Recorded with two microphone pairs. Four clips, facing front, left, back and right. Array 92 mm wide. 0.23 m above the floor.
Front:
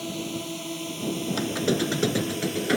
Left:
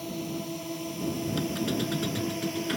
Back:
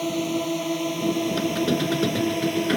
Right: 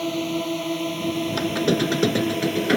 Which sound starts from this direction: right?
A squeak, at 1.3 s.